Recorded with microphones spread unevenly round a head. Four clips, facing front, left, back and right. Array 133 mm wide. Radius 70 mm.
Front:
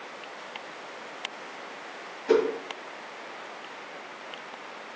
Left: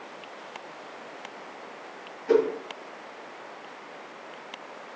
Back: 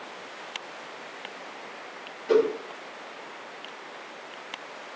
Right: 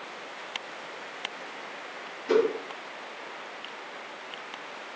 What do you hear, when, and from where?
2.3 s a whoosh: 10° left, 1.1 m